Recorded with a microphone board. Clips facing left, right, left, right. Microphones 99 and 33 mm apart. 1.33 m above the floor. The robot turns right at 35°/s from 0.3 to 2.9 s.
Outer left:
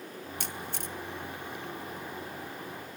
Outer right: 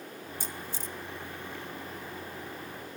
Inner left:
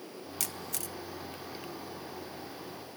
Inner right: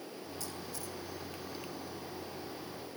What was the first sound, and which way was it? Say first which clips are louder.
A camera shutter: outer left 2 dB, inner left 4 dB; 75° left (ahead or behind).